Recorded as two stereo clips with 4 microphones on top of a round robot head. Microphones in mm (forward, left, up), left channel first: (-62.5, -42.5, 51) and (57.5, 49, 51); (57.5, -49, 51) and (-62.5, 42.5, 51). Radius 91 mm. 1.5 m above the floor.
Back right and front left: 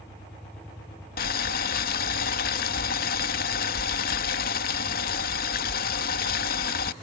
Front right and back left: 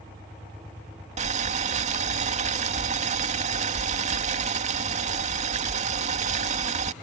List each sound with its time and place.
1.2 s boiling: 170° right